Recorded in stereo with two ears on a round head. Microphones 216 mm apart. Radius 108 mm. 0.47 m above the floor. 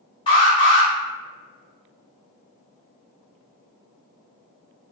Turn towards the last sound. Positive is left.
turn(degrees=20)  # may be behind; listen again after turning